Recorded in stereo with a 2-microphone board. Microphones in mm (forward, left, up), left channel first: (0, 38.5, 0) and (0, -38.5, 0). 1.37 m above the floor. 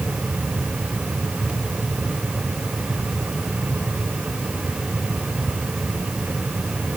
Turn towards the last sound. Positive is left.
No sound to turn to.